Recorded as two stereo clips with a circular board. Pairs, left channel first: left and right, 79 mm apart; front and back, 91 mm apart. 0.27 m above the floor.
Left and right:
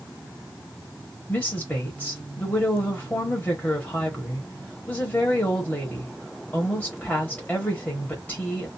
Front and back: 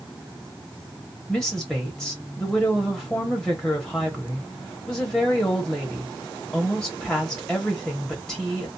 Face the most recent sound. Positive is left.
turn(degrees=70)